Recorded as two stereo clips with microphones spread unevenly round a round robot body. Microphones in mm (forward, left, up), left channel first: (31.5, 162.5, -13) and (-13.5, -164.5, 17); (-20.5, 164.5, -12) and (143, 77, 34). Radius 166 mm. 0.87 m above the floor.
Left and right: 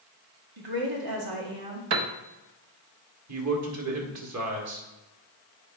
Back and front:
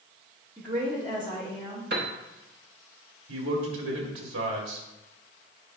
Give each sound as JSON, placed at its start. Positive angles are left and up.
{"t": 0.6, "sound": "a woman speaking", "azimuth_deg": -120, "distance_m": 2.0}
{"t": 1.9, "sound": "a piano", "azimuth_deg": -80, "distance_m": 0.8}
{"t": 3.3, "sound": "a man speaking", "azimuth_deg": -55, "distance_m": 1.9}